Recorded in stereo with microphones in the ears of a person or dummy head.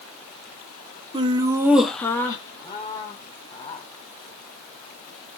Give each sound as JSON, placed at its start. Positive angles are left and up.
{"t": 1.1, "sound": "laughter", "side_deg": -20, "distance_m": 0.6}